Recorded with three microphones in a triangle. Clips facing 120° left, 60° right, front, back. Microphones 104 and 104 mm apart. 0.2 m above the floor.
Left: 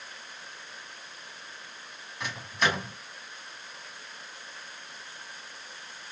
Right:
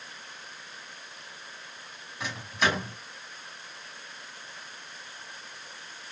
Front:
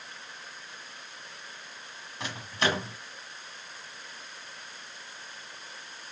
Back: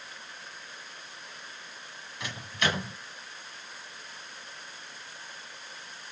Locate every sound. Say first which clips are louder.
2.2 s a microwave: right 1 dB, front 2 dB; 30° left, 1.1 m